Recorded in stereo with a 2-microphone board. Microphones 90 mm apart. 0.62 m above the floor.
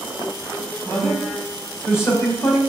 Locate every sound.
0.8 s a man speaking: 25° left (ahead or behind), 4 m; by 2.6 s 35° left (ahead or behind), 2.5 m